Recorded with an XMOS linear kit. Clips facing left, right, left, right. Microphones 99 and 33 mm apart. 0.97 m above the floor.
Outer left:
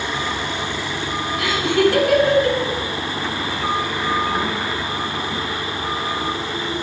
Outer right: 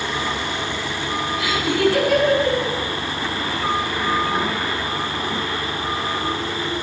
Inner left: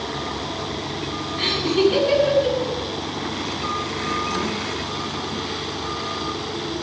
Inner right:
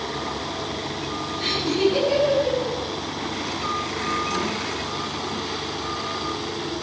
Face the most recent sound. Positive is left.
turn(degrees=75)  # may be behind; listen again after turning